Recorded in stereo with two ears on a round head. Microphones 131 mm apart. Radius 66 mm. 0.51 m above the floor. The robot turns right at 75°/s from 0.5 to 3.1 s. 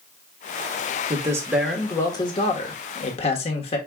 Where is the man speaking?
45° right, 1.2 m; by 3.8 s 105° left, 1.2 m.